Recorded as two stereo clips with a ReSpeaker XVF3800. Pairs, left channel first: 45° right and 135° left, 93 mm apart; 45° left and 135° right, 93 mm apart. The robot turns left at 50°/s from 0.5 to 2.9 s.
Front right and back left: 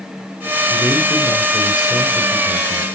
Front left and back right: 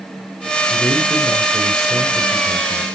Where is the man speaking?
Straight ahead, 2 m; by 2.9 s 105° right, 2 m.